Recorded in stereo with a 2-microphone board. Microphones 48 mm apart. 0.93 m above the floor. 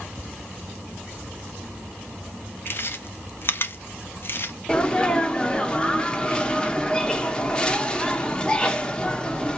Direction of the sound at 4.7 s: 15° left (ahead or behind).